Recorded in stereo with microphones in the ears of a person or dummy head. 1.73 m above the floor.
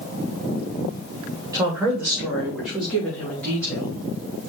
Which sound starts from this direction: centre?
A woman speaking, at 1.5 s.